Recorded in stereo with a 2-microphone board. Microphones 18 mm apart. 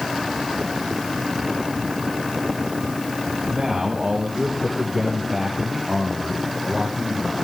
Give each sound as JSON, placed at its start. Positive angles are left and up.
{"t": 3.5, "sound": "a man speaking", "side_deg": -5, "distance_m": 8.0}